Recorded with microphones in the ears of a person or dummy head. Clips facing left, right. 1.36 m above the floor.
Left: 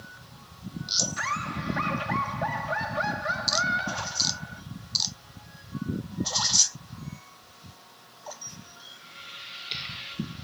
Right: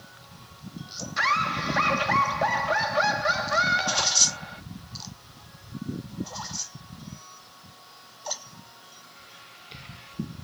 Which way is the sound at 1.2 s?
65° right (ahead or behind).